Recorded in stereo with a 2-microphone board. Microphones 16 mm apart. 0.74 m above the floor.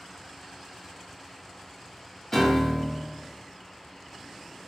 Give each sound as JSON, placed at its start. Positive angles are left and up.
{"t": 2.3, "sound": "a piano", "side_deg": 25, "distance_m": 0.8}